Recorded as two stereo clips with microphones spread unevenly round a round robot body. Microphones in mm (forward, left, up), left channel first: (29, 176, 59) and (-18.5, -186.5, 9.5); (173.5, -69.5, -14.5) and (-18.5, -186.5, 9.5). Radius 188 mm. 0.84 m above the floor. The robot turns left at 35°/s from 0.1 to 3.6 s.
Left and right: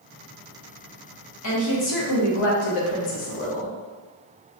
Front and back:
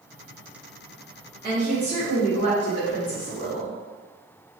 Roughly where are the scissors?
I don't hear scissors.